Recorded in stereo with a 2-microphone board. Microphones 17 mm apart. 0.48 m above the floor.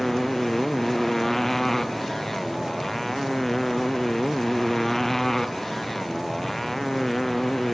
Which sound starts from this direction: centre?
A motorcycle, at 0.0 s.